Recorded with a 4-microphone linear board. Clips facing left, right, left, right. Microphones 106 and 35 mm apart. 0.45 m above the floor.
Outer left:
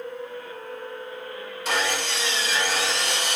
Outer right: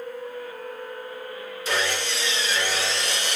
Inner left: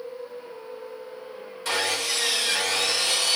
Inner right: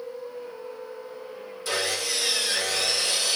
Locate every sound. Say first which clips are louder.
1.6 s sawing: outer left 1 dB, inner left 2 dB; 70° left (ahead or behind), 3 m